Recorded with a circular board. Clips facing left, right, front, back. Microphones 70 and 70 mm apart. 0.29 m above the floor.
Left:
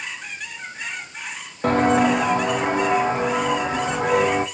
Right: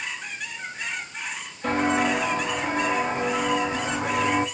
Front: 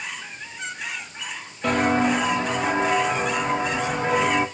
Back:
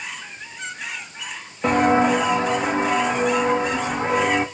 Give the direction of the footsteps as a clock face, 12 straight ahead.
8 o'clock.